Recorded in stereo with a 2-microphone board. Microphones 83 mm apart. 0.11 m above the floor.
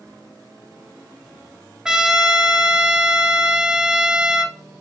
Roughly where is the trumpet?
Centre.